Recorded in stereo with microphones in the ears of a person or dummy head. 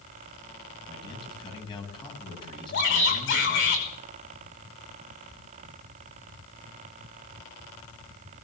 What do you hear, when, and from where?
0.9 s a man speaking: 25° left (ahead or behind), 7 m
2.7 s a shout: 60° left (ahead or behind), 5.5 m